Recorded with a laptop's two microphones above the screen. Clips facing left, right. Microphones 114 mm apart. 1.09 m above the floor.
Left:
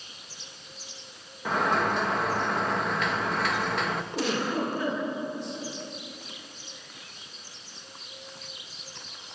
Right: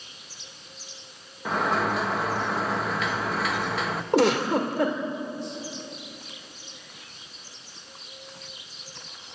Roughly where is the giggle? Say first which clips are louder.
Right 9 dB; right.